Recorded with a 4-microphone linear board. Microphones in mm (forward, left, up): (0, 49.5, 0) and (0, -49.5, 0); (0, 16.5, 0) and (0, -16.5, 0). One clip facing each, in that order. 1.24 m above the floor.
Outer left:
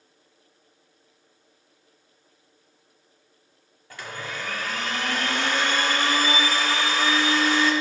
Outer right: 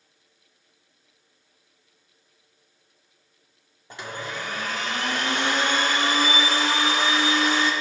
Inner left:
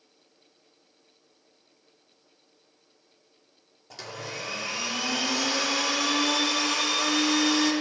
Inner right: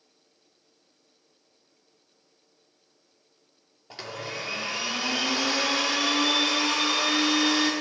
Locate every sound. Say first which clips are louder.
3.9 s a blender: outer right 2 dB, inner right 2 dB; 20° right (ahead or behind), 1.3 m